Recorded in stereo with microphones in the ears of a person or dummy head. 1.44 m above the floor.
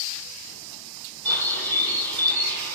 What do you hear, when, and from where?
1.2 s a bird: 55° right (ahead or behind), 4 m